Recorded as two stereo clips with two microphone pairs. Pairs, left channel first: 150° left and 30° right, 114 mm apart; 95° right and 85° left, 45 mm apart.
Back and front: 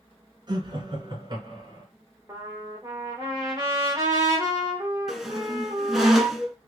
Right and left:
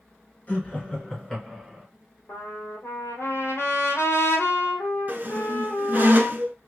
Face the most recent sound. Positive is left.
turn(degrees=55)